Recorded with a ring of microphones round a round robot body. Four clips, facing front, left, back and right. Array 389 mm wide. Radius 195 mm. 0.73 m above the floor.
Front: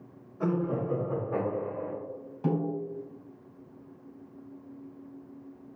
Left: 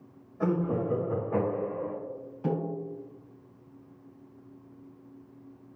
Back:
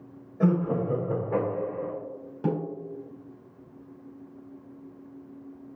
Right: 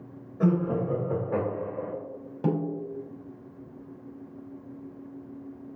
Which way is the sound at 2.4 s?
115° right.